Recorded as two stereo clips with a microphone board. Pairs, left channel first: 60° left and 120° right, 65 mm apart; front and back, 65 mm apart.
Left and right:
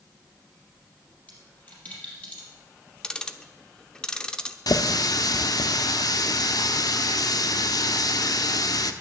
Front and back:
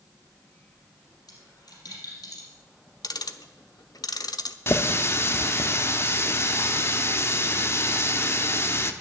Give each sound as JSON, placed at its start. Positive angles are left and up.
{"t": 1.3, "sound": "a dropped coin", "azimuth_deg": -5, "distance_m": 4.0}
{"t": 3.0, "sound": "ticking", "azimuth_deg": -20, "distance_m": 0.7}
{"t": 4.7, "sound": "a running tap", "azimuth_deg": 50, "distance_m": 0.8}